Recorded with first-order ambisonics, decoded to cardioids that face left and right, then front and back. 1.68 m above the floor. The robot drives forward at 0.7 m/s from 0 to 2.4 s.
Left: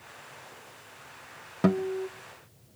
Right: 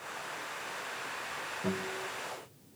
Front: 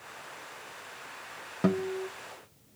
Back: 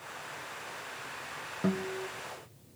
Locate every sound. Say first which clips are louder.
1.6 s a guitar: left 11 dB, front 5 dB; 65° left, 1.1 m; by 2.1 s 85° left, 1.0 m